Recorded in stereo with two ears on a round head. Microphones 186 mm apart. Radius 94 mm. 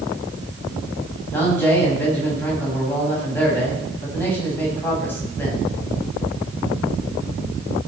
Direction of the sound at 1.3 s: 10° left (ahead or behind).